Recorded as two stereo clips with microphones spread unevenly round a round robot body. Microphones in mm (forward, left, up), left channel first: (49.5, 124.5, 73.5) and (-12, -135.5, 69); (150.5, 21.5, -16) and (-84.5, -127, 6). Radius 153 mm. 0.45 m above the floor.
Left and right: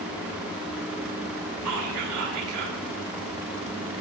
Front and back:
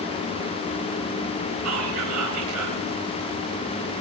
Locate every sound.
1.6 s whispering: 125° right, 5 m